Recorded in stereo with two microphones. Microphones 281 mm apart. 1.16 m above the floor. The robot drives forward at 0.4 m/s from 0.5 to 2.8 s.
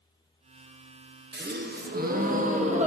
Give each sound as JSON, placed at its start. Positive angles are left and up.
{"t": 1.3, "sound": "a gasp", "side_deg": -35, "distance_m": 0.5}